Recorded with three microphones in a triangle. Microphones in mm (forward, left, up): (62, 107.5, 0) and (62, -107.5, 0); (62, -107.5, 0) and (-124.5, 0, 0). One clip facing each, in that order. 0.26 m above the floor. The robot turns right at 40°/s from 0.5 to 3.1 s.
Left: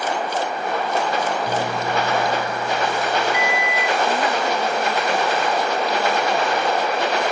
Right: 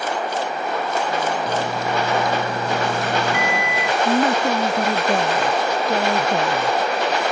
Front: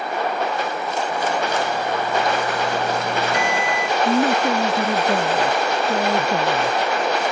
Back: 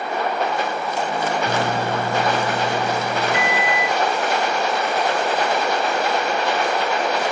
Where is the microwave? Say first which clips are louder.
Even, back 1 dB; 170° left; by 4.0 s 125° right.